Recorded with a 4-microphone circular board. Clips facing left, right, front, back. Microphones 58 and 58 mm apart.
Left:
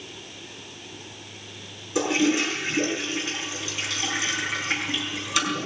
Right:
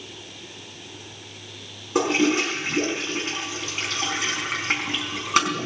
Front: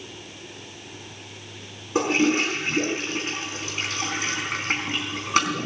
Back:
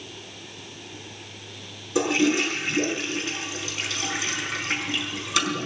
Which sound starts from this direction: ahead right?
A toilet flushing, at 1.9 s.